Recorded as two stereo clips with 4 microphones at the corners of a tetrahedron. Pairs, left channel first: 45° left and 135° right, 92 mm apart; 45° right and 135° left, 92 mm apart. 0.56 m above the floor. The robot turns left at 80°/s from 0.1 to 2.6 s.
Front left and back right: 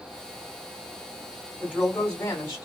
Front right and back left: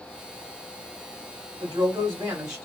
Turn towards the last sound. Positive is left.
turn(degrees=55)